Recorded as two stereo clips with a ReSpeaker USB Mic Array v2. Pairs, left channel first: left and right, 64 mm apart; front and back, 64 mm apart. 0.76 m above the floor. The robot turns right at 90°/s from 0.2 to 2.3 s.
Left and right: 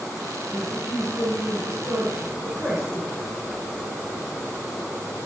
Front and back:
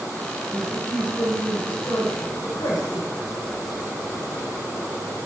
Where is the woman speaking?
170° right, 7 m; by 3.1 s 5° right, 7 m.